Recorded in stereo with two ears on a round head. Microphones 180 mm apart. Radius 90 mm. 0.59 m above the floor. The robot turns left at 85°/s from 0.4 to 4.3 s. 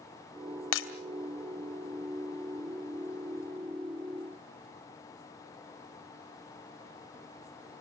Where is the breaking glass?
75° left (ahead or behind), 2.5 m; by 0.9 s 60° left (ahead or behind), 2.5 m.